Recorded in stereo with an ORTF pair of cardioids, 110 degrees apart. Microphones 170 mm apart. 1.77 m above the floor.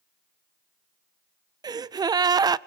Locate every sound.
1.6 s a gasp: 25° right, 0.5 m